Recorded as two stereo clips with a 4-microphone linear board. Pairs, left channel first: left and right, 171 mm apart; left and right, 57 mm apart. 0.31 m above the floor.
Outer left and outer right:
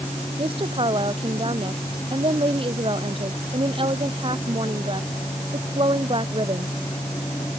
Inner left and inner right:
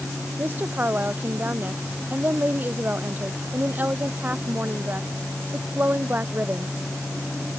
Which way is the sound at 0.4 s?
30° right (ahead or behind).